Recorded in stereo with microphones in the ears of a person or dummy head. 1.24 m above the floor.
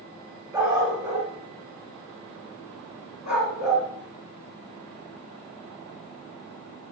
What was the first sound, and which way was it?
A dog barking, 25° right (ahead or behind).